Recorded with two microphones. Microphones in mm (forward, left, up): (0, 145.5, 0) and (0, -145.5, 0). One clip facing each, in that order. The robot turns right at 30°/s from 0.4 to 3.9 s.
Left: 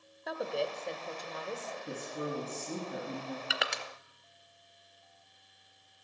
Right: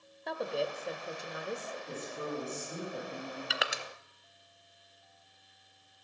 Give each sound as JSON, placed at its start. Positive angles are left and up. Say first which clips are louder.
{"t": 0.3, "sound": "a woman speaking", "louder": "even", "side_deg": 0, "distance_m": 0.9}
{"t": 1.9, "sound": "a woman speaking", "louder": "left 2 dB", "azimuth_deg": 50, "distance_m": 4.5}
{"t": 3.5, "sound": "crushing", "louder": "even", "side_deg": 0, "distance_m": 0.6}